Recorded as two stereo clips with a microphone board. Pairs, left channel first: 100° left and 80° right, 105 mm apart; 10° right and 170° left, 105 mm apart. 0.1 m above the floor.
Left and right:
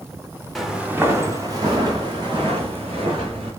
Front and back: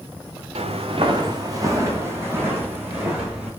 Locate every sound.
0.6 s footsteps: 170° right, 0.9 m; by 3.5 s 115° right, 3.5 m